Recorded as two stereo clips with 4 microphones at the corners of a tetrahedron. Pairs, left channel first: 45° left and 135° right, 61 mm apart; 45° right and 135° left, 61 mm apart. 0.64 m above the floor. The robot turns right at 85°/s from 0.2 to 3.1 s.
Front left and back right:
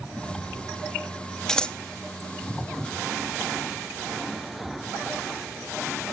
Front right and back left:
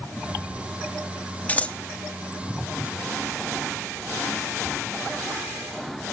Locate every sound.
1.5 s scissors: 25° right, 0.7 m; by 1.8 s 5° right, 0.7 m